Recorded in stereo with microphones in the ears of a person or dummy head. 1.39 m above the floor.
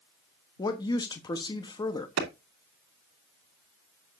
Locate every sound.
0.6 s a woman speaking: 20° left (ahead or behind), 1.0 m
2.2 s a clap: 80° right, 2.5 m